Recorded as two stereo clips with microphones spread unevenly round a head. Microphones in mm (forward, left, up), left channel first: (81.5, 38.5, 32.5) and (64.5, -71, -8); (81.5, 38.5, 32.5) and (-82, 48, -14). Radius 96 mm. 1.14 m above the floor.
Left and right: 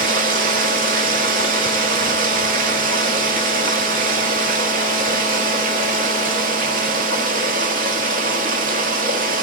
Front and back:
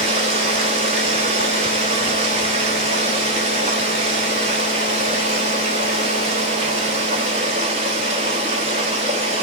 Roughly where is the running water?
Behind right.